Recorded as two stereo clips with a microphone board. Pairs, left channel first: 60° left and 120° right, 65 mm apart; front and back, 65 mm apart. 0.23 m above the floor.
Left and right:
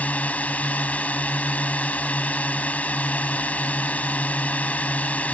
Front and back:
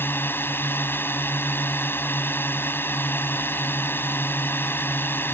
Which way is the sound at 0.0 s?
10° left.